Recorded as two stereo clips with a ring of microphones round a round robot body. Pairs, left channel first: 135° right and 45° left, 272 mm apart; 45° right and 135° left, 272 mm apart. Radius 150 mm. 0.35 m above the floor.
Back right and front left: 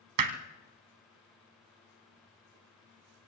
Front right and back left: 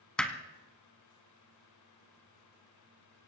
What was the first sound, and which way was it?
Hammering, 40° left.